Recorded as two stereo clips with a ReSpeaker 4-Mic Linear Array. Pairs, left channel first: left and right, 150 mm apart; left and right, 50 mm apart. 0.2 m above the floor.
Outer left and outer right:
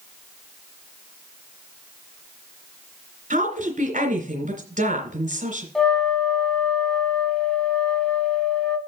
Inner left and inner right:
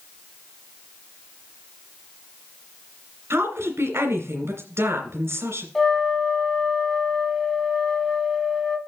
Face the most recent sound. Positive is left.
turn(degrees=5)  # may be behind; listen again after turning